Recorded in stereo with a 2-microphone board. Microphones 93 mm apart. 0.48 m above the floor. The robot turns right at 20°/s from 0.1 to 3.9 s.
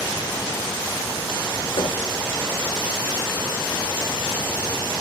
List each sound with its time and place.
1.8 s knocking: 60° left (ahead or behind), 7.5 m; by 2.0 s 55° left (ahead or behind), 7.5 m